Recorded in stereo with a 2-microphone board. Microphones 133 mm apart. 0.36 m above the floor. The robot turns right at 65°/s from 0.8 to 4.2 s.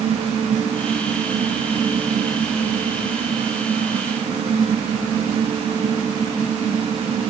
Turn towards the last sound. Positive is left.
No sound to turn to.